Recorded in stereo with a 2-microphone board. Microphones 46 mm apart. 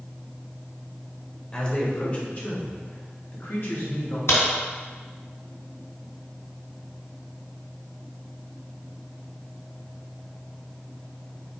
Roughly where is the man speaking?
Left.